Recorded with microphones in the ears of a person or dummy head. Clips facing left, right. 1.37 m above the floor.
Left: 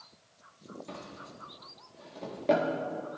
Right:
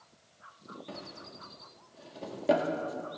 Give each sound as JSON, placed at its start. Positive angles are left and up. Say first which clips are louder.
{"t": 0.9, "sound": "a drawer", "louder": "even", "side_deg": -5, "distance_m": 1.3}